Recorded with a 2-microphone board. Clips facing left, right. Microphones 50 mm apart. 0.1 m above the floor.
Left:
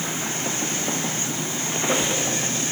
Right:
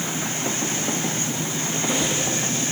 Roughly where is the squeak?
Left.